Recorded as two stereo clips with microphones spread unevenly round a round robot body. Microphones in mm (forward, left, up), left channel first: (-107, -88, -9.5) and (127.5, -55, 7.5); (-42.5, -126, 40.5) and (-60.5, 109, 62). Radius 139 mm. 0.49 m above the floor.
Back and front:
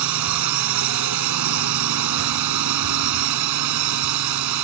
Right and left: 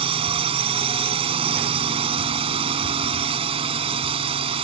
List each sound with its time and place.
0.0 s a drone: 25° left